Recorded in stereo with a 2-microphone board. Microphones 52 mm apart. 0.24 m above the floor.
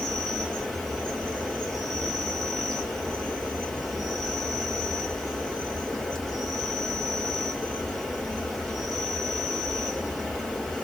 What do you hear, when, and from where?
0.0 s an insect: 5° left (ahead or behind), 1.2 m